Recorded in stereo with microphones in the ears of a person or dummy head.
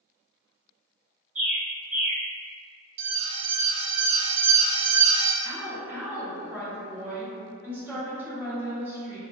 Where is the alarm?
40° right (ahead or behind), 0.7 m.